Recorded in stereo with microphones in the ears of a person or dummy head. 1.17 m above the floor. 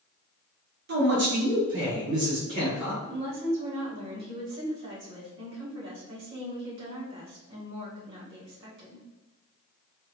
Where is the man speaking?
55° right (ahead or behind), 0.9 m; by 2.9 s 60° right (ahead or behind), 1.7 m.